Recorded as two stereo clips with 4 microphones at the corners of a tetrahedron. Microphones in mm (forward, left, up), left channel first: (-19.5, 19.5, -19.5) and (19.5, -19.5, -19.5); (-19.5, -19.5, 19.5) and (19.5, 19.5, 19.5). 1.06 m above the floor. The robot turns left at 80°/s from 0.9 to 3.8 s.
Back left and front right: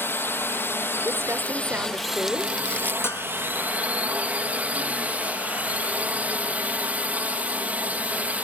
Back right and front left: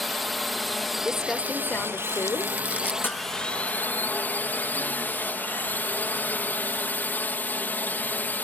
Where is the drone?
135° left; by 8.4 s 95° right.